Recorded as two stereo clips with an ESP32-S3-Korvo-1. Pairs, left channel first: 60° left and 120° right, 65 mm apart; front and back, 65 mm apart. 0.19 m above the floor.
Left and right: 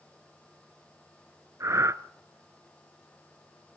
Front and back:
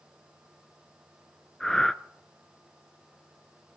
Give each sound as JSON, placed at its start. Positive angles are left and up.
{"t": 1.6, "sound": "breathing", "azimuth_deg": -85, "distance_m": 0.6}